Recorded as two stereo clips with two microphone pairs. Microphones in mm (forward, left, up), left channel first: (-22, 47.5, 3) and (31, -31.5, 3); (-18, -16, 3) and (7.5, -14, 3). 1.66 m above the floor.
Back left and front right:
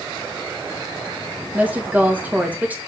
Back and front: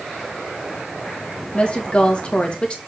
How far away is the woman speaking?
About 1.9 m.